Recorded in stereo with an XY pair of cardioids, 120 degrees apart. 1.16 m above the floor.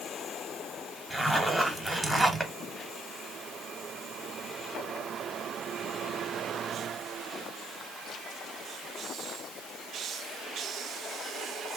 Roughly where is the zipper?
Ahead.